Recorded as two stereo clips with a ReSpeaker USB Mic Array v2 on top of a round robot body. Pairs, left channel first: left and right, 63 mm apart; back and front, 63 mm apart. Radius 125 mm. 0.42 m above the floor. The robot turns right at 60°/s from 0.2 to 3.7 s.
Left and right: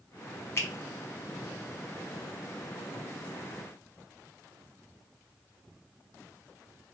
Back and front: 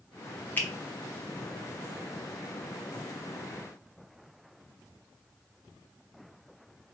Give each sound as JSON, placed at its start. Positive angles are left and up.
{"t": 0.6, "sound": "a finger snap", "azimuth_deg": 125, "distance_m": 1.2}